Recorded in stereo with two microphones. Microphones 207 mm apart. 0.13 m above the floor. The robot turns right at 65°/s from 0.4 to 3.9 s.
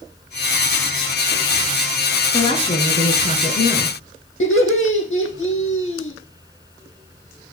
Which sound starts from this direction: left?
Laughter, at 4.4 s.